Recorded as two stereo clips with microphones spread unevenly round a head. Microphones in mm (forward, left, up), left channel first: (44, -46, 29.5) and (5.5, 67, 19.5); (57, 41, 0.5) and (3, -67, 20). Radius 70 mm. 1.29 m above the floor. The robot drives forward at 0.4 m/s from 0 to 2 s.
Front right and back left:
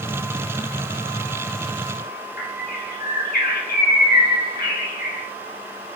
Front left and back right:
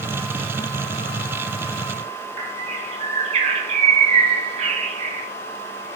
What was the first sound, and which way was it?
A bird, 85° right.